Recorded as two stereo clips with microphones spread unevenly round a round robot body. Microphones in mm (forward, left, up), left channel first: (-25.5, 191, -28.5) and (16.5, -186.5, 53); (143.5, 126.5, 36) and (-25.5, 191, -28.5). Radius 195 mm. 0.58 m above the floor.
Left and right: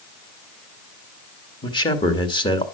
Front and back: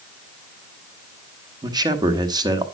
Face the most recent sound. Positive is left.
turn(degrees=150)